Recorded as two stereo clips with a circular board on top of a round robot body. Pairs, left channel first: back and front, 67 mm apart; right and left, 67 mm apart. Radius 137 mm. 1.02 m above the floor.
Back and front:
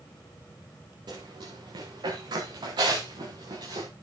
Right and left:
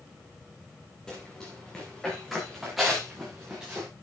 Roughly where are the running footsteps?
Ahead.